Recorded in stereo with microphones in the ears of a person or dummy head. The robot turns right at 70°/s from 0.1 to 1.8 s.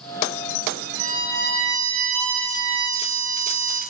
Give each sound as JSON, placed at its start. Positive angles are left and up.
{"t": 1.0, "sound": "a violin", "azimuth_deg": -155, "distance_m": 3.0}